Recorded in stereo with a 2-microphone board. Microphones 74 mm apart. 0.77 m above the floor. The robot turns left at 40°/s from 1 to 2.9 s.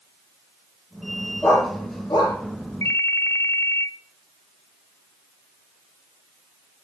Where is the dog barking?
30° left (ahead or behind), 8.5 m; by 2.4 s 65° left (ahead or behind), 8.5 m.